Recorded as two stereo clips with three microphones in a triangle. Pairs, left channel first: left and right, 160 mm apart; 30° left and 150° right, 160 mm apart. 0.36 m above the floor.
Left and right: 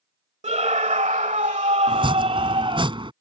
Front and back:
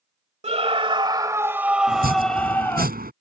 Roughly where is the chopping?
Behind right.